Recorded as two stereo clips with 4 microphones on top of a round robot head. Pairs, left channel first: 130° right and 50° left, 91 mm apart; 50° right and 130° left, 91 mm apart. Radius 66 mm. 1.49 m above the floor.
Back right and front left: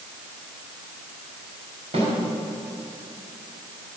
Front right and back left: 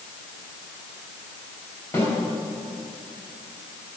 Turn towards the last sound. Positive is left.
turn(degrees=15)